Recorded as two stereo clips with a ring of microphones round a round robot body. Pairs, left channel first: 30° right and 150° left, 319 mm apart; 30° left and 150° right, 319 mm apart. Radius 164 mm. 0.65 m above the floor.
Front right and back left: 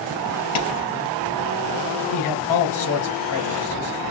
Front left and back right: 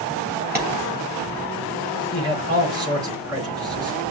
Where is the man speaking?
75° right, 3.5 m.